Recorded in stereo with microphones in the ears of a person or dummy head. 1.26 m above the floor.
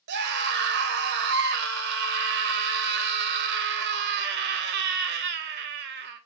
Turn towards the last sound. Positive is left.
turn(degrees=-60)  # may be behind; listen again after turning